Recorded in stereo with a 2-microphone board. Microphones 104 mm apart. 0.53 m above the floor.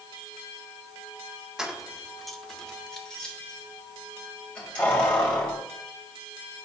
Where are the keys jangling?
5° right (ahead or behind), 0.6 m; by 5.6 s 10° left (ahead or behind), 2.5 m.